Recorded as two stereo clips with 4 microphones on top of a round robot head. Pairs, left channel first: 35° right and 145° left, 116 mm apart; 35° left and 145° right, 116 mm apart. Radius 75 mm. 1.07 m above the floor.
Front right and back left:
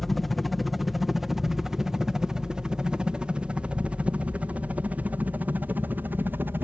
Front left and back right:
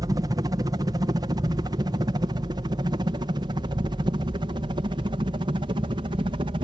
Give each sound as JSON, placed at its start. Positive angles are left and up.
{"t": 0.0, "sound": "a helicopter", "azimuth_deg": -125}